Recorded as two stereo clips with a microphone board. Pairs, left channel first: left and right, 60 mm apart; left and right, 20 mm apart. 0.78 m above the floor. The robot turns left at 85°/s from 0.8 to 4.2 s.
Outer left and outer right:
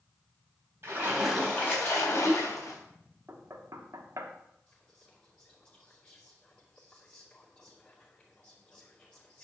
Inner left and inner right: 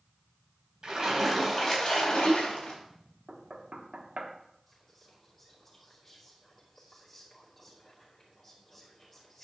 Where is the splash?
140° right, 3.5 m; by 2.8 s 55° left, 3.5 m.